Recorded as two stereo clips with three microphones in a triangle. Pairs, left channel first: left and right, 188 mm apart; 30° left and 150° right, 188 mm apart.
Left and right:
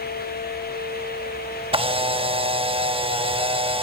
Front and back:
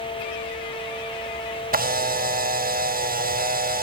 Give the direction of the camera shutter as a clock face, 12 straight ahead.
5 o'clock.